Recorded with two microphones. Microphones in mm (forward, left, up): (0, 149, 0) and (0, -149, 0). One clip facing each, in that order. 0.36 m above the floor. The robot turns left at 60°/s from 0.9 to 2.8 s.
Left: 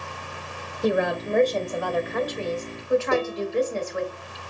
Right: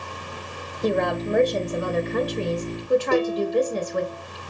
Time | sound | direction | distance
0.8 | a woman speaking | 15° left | 1.1 m
3.1 | dishes clattering | 65° right (ahead or behind) | 3.5 m